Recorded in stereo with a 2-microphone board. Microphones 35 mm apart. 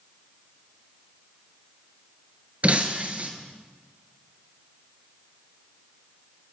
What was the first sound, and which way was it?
Breaking glass, 45° right (ahead or behind).